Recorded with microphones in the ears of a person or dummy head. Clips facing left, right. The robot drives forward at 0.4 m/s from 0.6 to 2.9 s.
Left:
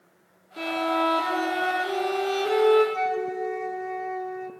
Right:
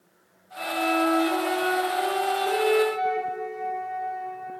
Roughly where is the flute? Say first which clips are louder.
Even; left.